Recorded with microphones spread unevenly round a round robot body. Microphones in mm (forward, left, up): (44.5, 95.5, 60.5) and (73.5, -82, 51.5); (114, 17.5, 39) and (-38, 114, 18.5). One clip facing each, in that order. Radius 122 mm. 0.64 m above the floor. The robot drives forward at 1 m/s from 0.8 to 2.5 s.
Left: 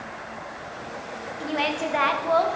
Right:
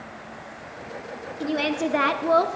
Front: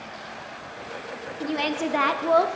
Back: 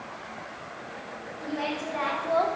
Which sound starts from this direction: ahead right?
A woman speaking, at 1.4 s.